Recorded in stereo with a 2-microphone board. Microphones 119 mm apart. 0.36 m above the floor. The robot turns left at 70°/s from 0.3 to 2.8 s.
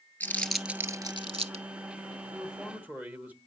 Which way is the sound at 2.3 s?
Centre (ahead or behind).